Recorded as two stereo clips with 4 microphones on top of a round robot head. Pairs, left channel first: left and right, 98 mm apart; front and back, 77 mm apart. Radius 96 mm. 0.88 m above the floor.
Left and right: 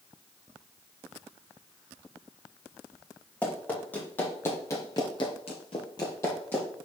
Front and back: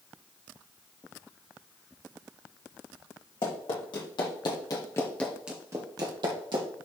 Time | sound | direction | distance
3.4 | running footsteps | 10° left | 3 m